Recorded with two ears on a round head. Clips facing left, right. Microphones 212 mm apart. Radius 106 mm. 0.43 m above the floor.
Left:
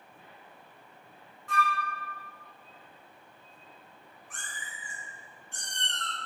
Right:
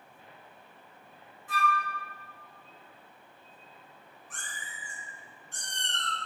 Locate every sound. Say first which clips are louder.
1.5 s a flute: even; 5° right (ahead or behind), 1.5 m
4.3 s a cat meowing: even; 35° right (ahead or behind), 1.7 m